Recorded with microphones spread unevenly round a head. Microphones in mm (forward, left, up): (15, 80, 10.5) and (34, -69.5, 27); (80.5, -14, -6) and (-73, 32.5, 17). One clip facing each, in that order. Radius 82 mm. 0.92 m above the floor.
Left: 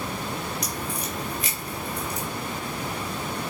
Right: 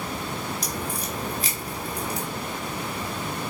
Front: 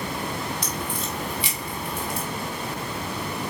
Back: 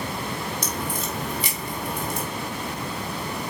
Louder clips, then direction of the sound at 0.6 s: Right 1 dB, back 1 dB; 145° right.